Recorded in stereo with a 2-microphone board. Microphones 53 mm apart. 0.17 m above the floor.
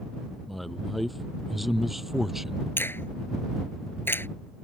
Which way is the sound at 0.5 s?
Centre (ahead or behind).